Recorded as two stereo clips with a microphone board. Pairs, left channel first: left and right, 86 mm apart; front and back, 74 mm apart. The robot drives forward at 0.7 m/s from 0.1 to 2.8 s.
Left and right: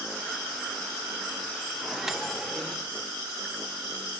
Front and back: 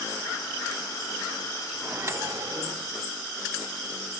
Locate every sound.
1.8 s a microwave: 165° right, 0.5 m; by 2.9 s 175° right, 1.0 m